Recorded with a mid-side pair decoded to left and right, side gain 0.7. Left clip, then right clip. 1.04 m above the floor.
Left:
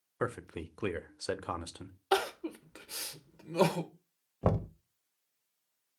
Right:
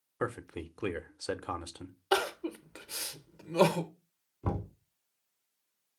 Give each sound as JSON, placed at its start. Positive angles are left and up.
{"t": 0.2, "sound": "a man speaking", "azimuth_deg": 5, "distance_m": 0.6}
{"t": 2.1, "sound": "crying", "azimuth_deg": -5, "distance_m": 0.6}
{"t": 4.4, "sound": "knocking", "azimuth_deg": 65, "distance_m": 0.8}